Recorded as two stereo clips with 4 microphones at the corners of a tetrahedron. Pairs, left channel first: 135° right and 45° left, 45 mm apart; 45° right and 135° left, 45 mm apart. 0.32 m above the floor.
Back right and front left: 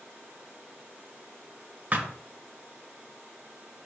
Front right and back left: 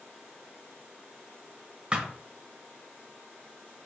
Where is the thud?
80° left, 0.6 m.